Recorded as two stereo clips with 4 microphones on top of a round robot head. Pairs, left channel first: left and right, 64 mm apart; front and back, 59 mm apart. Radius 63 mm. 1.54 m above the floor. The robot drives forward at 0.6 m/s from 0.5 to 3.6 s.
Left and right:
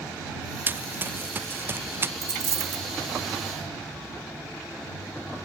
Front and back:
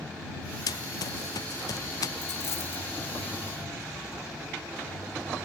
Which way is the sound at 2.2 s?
50° right.